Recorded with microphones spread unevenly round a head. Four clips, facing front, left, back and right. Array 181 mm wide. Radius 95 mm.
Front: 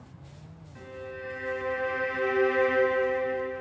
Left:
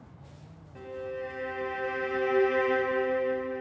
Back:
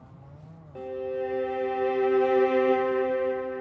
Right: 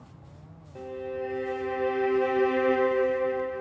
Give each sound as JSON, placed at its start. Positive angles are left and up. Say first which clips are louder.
{"t": 0.8, "sound": "a violin", "louder": "right 3 dB, back 9 dB", "azimuth_deg": -160, "distance_m": 1.1}